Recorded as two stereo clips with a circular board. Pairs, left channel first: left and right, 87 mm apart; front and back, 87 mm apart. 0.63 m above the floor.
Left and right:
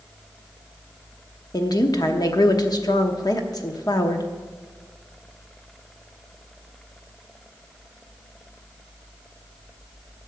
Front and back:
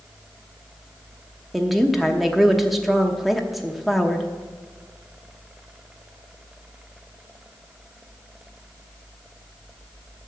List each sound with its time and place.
1.5 s a woman speaking: 90° left, 0.9 m